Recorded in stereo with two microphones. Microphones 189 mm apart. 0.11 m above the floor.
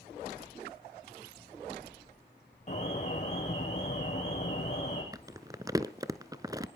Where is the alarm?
40° left (ahead or behind), 7.5 m.